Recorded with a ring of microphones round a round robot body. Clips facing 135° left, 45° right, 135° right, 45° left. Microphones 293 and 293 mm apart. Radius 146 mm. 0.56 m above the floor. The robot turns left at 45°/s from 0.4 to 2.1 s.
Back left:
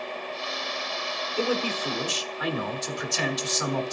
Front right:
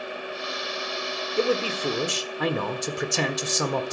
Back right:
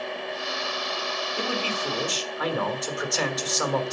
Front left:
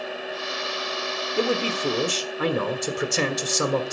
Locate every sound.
1.4 s a man speaking: 20° left, 1.5 m; by 3.9 s 10° right, 1.5 m